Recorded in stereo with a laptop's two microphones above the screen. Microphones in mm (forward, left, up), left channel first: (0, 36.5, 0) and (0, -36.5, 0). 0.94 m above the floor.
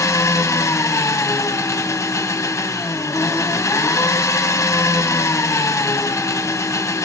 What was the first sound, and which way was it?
An engine running, 45° left (ahead or behind).